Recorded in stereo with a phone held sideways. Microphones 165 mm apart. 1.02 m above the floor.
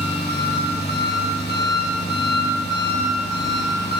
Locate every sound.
0.0 s an engine running: 85° left, 4 m